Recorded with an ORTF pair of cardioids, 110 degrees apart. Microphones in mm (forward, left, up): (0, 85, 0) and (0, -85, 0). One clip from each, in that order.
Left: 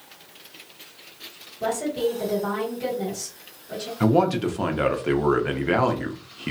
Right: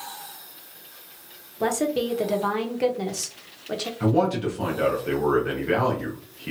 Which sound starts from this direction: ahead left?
A man speaking, at 4.0 s.